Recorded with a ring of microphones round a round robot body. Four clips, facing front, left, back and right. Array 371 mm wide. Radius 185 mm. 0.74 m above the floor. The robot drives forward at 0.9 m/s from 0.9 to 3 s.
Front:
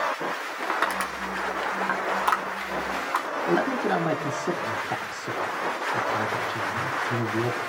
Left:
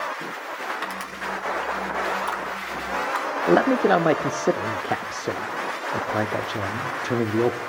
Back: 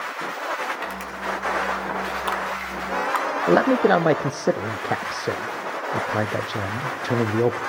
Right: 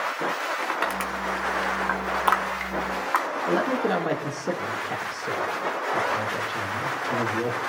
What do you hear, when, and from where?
0.6 s crushing: 30° right, 1.9 m; by 3.3 s 120° right, 1.3 m
3.5 s a man speaking: 140° left, 0.6 m